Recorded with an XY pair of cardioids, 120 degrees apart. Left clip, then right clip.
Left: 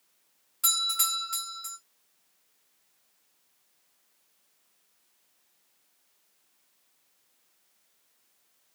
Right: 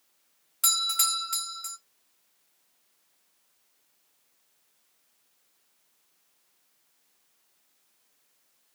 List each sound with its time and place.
0.6 s a doorbell: 30° right, 1.1 m